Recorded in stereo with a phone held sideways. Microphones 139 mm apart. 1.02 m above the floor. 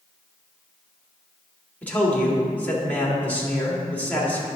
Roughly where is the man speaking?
Centre.